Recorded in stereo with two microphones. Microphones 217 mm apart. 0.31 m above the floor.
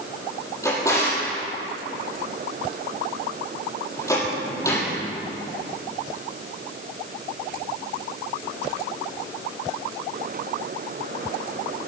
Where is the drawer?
15° left (ahead or behind), 6 m.